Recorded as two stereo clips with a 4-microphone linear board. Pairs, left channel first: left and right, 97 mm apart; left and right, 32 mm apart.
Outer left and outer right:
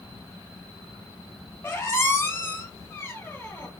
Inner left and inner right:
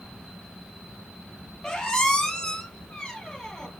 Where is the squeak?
25° left (ahead or behind), 0.9 m.